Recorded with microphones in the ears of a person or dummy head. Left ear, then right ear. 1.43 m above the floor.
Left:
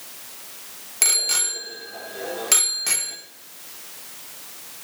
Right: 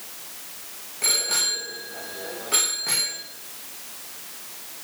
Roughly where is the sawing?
I don't hear sawing.